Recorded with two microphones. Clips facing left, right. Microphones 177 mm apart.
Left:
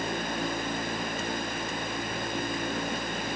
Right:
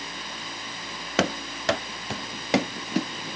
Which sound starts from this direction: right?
Running footsteps, at 1.2 s.